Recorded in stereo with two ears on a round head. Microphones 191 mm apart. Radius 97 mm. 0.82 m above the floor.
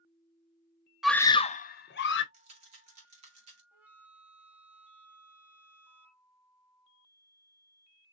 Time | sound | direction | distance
1.0 | a scream | 5° right (ahead or behind) | 0.5 m
2.3 | a rattle | 30° right (ahead or behind) | 2.5 m
3.7 | a flute | 10° right (ahead or behind) | 1.3 m